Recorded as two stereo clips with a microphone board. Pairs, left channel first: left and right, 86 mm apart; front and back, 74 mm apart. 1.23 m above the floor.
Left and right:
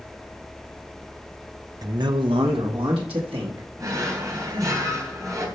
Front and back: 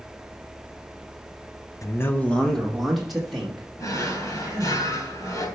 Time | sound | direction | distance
1.8 | a man speaking | 45° right | 0.7 m
3.8 | a drawer | 40° right | 3 m